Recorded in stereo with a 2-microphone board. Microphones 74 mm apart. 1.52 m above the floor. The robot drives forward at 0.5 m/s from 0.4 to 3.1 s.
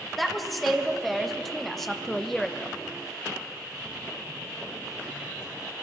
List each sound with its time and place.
0.2 s a woman speaking: centre (ahead or behind), 1.5 m; by 2.8 s 5° left (ahead or behind), 0.5 m